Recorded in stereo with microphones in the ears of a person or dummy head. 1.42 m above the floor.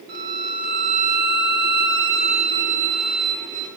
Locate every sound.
0.1 s a violin: 55° right (ahead or behind), 3 m